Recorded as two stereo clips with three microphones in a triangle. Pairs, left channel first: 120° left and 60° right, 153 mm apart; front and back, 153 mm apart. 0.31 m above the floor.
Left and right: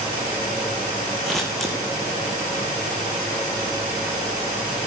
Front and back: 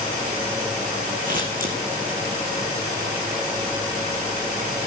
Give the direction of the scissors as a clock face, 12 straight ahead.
5 o'clock.